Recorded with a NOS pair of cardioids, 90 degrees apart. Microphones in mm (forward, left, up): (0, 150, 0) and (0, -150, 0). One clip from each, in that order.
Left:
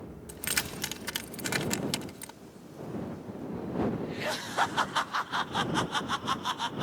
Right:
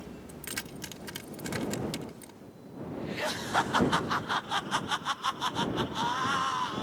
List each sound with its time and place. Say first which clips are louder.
0.3 s keys jangling: left 8 dB; 50° left